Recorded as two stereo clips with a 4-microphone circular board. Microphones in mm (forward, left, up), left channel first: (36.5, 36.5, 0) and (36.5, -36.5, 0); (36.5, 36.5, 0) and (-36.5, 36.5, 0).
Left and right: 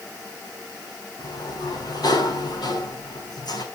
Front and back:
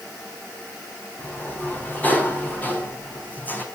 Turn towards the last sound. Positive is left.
turn(degrees=65)